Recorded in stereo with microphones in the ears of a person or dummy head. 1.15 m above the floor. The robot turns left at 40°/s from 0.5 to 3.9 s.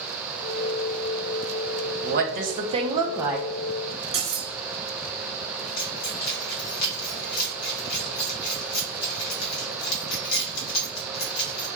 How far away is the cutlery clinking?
About 1.4 m.